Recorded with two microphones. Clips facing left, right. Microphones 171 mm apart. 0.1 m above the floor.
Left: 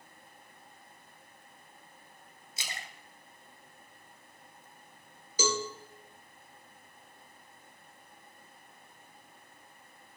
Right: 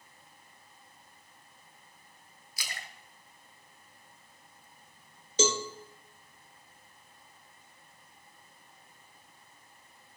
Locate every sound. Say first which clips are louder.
2.6 s a splash: left 1 dB; 25° left (ahead or behind), 0.9 m
5.4 s a cowbell: right 3 dB; 25° right (ahead or behind), 0.8 m